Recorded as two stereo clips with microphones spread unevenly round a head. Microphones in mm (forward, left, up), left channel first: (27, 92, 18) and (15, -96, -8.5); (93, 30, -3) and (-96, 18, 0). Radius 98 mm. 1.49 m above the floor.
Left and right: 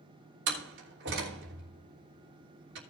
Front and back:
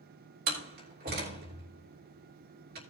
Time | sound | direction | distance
0.5 | a door slam | 130° right | 3 m